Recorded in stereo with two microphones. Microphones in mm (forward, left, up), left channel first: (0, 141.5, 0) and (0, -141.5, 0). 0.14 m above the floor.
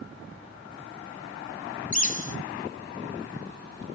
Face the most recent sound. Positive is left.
turn(degrees=30)  # may be behind; listen again after turning